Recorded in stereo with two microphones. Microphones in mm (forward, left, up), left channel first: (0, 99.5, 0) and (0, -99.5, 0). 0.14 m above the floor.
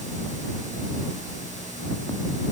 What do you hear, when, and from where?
Only background noise.